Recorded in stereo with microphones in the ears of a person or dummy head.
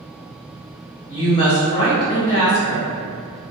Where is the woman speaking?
25° left (ahead or behind), 0.6 m.